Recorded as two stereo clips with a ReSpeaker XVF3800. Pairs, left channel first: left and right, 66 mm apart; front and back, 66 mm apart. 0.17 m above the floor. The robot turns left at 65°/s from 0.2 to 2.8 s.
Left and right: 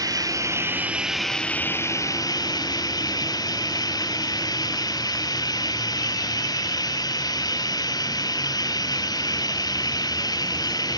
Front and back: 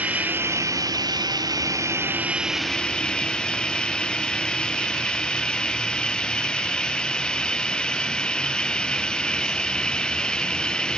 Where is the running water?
115° right; by 11.0 s 75° left.